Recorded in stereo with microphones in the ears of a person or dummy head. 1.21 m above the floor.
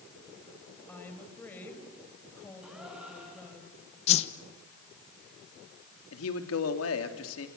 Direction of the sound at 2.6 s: 10° right (ahead or behind).